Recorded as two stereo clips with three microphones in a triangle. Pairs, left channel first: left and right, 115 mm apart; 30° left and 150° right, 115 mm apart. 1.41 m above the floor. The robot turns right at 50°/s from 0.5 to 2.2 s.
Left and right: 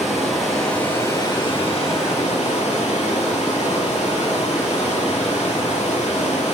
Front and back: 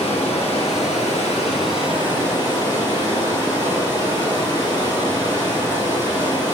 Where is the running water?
Straight ahead, 4 m; by 6.5 s 85° left, 4 m.